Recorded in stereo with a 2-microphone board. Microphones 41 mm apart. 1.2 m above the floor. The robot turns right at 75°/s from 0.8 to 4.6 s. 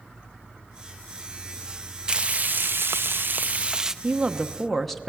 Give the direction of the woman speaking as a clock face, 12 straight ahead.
1 o'clock.